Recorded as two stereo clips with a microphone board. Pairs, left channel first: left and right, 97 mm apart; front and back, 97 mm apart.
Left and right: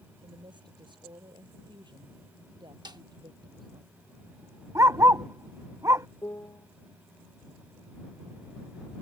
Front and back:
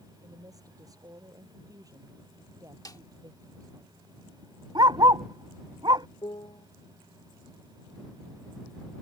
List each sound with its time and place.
0.2 s a woman speaking: 130° right
2.9 s a snare drum: 50° right
4.8 s a dog barking: 145° right
6.2 s a piano: 30° left